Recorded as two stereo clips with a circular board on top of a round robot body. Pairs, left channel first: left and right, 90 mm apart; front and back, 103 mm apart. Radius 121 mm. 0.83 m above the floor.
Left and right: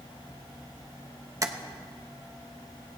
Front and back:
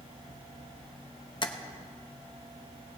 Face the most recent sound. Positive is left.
turn(degrees=-40)